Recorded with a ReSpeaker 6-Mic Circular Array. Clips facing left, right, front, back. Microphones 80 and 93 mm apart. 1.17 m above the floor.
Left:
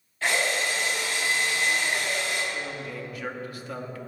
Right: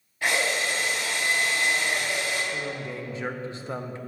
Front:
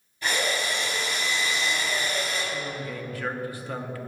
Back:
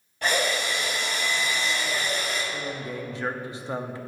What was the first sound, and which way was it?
A drill, 165° right.